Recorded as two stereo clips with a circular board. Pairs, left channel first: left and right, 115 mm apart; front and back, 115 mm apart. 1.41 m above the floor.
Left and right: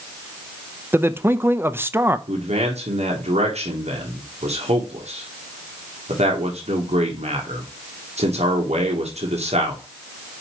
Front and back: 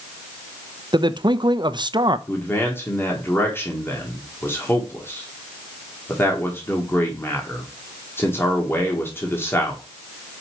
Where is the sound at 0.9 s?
155° right, 0.5 m.